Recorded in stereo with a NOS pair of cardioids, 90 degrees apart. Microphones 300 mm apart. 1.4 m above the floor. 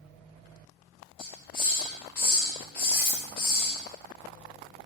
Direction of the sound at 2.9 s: 60° left.